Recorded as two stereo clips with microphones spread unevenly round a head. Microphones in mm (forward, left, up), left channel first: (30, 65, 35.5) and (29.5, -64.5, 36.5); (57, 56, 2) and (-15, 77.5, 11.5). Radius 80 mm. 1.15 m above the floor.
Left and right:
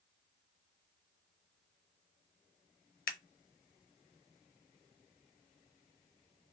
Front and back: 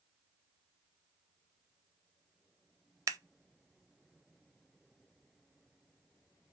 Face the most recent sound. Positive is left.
turn(degrees=125)